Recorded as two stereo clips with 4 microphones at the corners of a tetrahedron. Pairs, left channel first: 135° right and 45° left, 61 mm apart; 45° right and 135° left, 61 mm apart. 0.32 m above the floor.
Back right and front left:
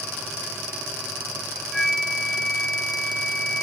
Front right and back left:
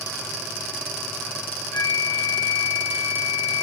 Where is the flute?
40° right, 0.6 m.